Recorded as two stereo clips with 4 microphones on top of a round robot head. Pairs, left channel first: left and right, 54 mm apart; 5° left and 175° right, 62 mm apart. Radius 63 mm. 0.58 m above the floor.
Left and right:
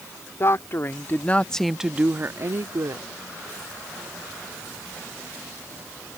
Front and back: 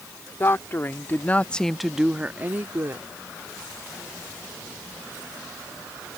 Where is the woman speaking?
55° left; by 3.0 s 120° right.